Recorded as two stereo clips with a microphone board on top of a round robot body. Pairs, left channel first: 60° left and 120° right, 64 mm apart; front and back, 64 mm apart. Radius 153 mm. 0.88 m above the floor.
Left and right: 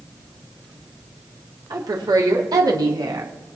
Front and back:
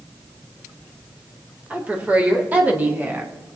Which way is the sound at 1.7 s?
115° right.